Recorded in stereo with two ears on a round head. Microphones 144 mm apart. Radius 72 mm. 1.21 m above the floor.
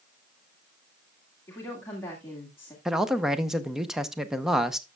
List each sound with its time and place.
1.5 s a woman speaking: 15° left (ahead or behind), 2.0 m
2.9 s a man speaking: 5° right (ahead or behind), 0.7 m